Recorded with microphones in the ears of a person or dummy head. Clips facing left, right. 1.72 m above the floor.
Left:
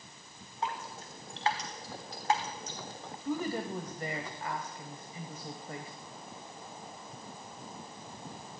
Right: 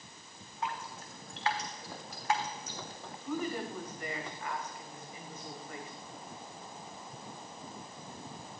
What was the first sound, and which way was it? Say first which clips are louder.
Dripping: left 2 dB; 30° left (ahead or behind).